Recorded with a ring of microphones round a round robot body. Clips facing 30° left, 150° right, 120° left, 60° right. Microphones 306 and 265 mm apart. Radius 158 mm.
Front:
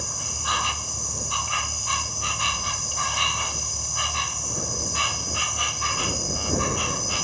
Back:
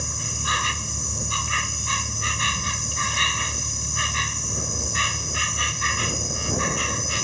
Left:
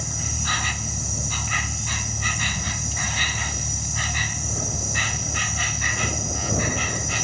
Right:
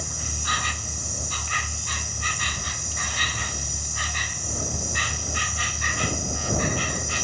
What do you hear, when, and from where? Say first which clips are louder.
0.0 s an insect: back 3 dB, left 4 dB; 145° left